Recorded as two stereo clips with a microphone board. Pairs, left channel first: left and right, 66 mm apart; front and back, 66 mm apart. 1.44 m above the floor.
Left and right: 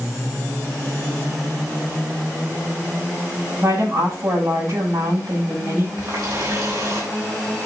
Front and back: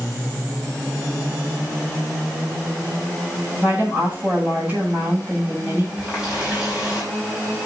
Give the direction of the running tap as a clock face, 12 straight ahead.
4 o'clock.